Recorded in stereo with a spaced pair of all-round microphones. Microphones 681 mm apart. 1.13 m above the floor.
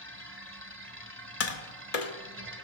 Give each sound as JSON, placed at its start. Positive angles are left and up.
{"t": 0.0, "sound": "a machine running", "side_deg": -20, "distance_m": 1.2}
{"t": 1.4, "sound": "tapping", "side_deg": 60, "distance_m": 1.0}